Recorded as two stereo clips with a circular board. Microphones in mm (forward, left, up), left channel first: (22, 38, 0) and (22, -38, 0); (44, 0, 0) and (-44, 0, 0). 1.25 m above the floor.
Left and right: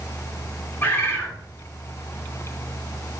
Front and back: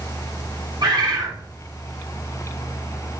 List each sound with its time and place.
0.8 s a bird: 150° left, 2 m